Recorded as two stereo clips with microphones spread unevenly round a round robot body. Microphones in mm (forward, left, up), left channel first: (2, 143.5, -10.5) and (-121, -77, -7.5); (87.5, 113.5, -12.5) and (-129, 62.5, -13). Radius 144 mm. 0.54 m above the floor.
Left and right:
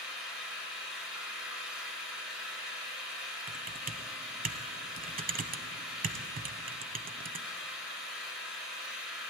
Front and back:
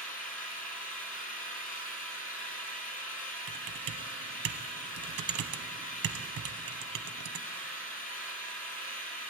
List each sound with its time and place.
0.0 s an engine running: 30° right, 1.7 m
3.5 s typing on a keyboard: 175° right, 0.9 m